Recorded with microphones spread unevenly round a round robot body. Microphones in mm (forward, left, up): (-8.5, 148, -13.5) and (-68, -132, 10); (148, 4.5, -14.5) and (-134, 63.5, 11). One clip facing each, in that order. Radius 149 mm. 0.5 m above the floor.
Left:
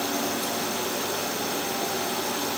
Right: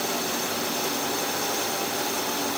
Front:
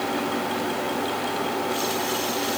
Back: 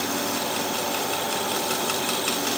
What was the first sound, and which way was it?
Only background noise.